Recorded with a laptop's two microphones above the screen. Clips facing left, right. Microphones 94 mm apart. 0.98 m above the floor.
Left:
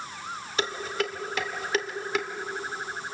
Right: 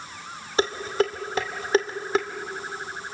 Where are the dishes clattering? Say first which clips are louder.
Right 7 dB; 35° right (ahead or behind), 1.8 m.